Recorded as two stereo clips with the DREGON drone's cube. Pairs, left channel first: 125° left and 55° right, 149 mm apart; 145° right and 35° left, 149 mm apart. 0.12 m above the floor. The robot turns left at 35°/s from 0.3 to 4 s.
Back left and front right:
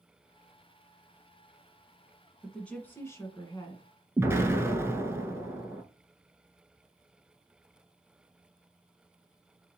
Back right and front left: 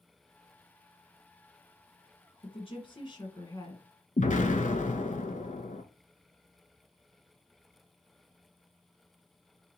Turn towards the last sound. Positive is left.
turn(degrees=-125)